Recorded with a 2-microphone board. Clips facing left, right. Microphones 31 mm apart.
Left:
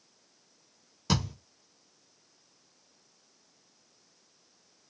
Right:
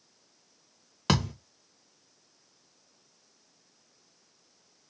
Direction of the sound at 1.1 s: 85° right.